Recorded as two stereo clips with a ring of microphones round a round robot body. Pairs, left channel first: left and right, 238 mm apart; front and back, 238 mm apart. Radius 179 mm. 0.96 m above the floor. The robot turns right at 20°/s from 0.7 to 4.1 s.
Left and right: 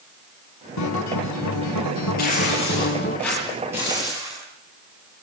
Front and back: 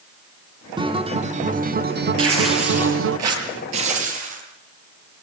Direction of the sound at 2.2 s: 155° left.